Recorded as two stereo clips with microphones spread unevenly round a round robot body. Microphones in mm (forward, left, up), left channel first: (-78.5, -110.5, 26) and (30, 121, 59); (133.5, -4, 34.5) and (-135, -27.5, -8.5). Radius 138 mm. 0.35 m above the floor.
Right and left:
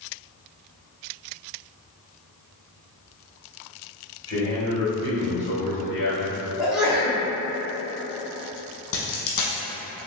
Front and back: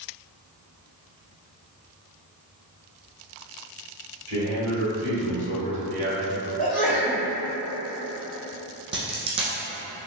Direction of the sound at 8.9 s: 100° right.